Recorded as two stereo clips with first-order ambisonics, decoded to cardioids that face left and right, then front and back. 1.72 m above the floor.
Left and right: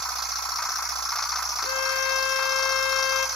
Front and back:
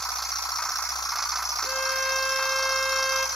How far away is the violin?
About 0.8 m.